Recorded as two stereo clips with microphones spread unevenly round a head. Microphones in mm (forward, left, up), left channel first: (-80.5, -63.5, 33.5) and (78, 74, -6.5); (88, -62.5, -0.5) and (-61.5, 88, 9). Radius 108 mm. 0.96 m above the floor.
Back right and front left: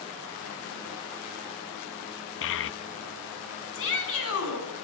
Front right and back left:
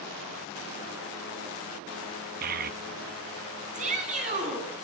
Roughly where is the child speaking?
Behind.